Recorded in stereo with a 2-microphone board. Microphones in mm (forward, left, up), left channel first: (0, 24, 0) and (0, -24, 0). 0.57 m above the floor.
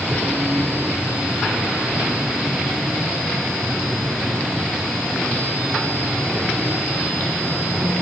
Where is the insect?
40° right (ahead or behind), 2.5 m.